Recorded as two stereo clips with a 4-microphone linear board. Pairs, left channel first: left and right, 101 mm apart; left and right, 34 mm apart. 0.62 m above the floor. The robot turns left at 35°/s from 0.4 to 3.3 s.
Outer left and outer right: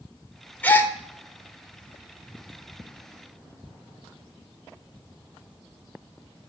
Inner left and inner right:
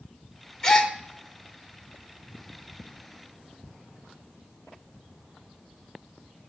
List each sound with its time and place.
0.6 s a gasp: 15° left (ahead or behind), 0.9 m; by 0.9 s 25° left (ahead or behind), 0.9 m